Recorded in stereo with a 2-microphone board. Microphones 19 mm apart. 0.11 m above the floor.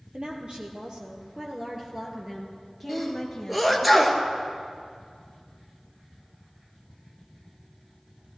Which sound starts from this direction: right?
A woman speaking, at 0.1 s.